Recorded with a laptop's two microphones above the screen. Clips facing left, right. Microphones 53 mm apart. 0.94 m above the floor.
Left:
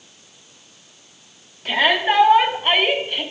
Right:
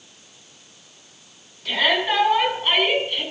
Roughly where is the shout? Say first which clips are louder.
Left 3 dB; left.